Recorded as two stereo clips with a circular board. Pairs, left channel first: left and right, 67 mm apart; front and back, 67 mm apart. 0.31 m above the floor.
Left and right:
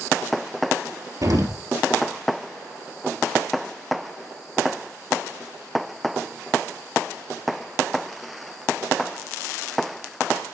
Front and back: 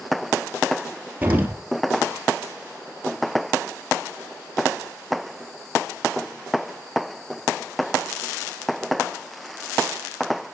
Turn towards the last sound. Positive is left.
turn(degrees=-115)